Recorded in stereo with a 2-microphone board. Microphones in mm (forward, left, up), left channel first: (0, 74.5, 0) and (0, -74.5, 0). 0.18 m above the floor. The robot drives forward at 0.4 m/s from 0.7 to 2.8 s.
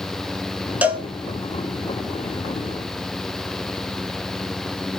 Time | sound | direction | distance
0.8 | a cowbell | 10° right (ahead or behind) | 0.6 m